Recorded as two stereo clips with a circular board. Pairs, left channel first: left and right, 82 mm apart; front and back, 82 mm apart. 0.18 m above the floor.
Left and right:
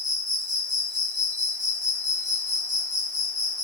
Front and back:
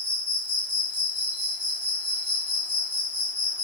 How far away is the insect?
About 1.7 m.